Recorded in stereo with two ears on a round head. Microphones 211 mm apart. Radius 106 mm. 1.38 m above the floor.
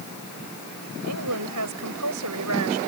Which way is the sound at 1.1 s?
80° right.